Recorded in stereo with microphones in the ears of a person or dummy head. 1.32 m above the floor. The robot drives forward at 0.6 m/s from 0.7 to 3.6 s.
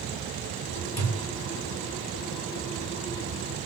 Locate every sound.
1.0 s a thud: 10° left (ahead or behind), 2 m